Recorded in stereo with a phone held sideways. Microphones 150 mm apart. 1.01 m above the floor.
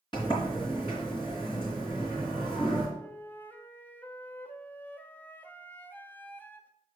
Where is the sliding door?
35° left (ahead or behind), 3 m.